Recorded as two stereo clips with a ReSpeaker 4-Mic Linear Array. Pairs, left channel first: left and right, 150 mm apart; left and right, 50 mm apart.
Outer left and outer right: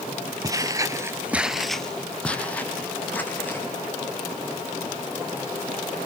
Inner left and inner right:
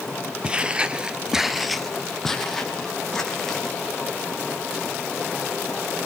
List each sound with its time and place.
0.4 s footsteps: 20° right (ahead or behind), 1.0 m; by 3.7 s 10° left (ahead or behind), 3 m